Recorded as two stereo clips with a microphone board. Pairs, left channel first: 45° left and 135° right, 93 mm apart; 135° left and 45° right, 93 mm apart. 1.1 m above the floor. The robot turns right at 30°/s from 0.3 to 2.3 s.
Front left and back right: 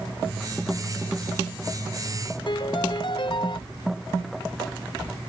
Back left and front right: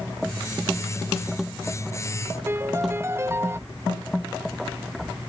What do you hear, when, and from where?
2.5 s a piano: 15° left